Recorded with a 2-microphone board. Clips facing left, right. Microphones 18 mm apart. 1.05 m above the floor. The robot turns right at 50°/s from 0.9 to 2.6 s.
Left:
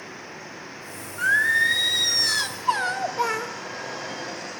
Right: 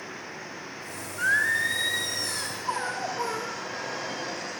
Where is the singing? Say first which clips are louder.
Left 4 dB; straight ahead, 1.9 m; by 3.5 s 75° left, 1.9 m.